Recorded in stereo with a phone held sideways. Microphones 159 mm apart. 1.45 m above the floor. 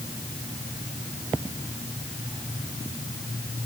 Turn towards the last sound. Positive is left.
No sound to turn to.